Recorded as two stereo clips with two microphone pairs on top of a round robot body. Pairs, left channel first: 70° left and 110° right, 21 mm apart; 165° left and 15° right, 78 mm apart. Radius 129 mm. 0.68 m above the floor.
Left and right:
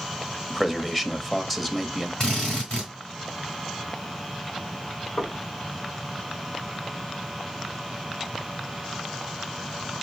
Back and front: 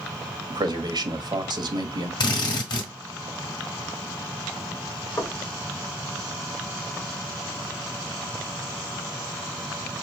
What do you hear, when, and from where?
0.5 s a man speaking: 20° right, 1.2 m
2.2 s a drill: 130° left, 1.4 m
5.2 s knocking: 110° left, 2.0 m